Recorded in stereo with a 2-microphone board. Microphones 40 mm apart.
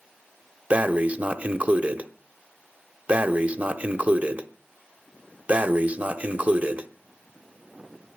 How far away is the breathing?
About 1.0 m.